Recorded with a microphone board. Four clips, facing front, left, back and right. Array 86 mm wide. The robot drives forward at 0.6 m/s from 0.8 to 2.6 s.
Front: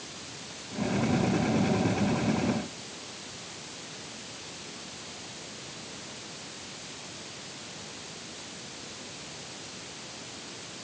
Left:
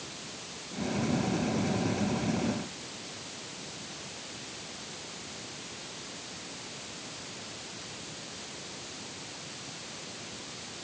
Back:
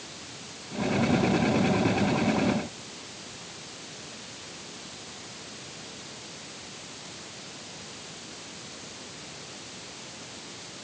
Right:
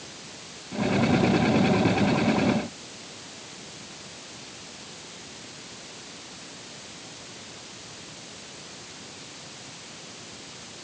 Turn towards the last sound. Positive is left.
No sound to turn to.